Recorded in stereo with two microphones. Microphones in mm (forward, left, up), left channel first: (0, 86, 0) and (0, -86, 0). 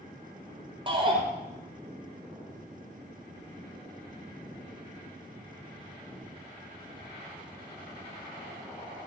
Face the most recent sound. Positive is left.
turn(degrees=-30)  # may be behind; listen again after turning